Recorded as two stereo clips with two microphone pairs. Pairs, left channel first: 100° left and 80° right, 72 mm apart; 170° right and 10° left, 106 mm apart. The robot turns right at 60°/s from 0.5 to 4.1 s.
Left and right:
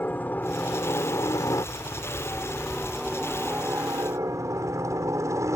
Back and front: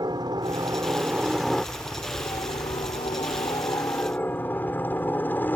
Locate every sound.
0.0 s a helicopter: 45° left; by 5.6 s 100° right